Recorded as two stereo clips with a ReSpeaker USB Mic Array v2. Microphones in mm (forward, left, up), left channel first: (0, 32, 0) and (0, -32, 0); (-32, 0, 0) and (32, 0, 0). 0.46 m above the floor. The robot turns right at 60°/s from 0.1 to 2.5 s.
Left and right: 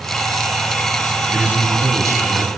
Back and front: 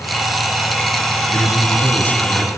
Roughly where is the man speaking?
Behind.